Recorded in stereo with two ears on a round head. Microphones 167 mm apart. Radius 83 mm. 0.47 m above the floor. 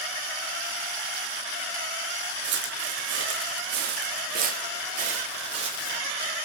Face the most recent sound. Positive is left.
turn(degrees=-30)  # may be behind; listen again after turning